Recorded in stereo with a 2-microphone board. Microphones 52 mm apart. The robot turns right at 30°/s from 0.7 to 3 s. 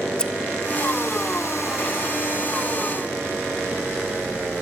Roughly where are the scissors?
Centre.